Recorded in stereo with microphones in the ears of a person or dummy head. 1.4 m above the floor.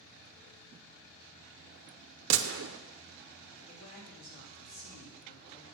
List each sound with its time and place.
2.3 s a gunshot: 75° right (ahead or behind), 0.7 m
3.7 s a man speaking: 55° left (ahead or behind), 3 m